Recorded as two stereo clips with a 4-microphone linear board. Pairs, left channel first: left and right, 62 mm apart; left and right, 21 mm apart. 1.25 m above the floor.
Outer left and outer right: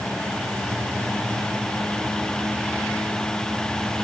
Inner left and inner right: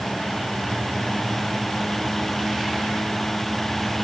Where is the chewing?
No chewing in this recording.